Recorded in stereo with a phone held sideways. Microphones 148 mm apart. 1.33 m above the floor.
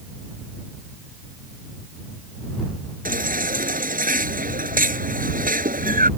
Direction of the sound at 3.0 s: 70° right (ahead or behind).